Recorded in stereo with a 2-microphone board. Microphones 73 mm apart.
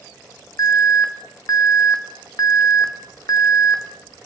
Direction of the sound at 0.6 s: 50° left (ahead or behind).